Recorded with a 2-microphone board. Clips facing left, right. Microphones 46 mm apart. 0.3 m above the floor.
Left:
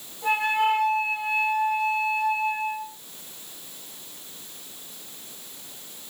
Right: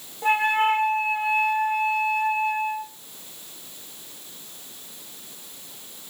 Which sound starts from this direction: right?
A flute, at 0.2 s.